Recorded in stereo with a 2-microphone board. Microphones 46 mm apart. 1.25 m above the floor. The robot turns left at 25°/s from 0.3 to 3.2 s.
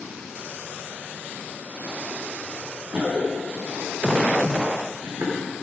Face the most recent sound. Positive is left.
turn(degrees=-70)  # may be behind; listen again after turning